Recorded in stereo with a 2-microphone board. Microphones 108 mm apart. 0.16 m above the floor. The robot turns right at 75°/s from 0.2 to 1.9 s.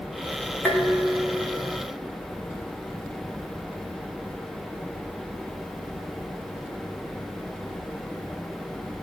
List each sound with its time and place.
0.7 s dishes clattering: 165° left, 8.5 m; by 1.8 s 105° right, 8.5 m